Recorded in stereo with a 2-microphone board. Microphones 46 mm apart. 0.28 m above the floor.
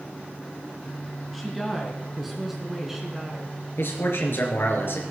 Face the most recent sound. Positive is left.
turn(degrees=65)  # may be behind; listen again after turning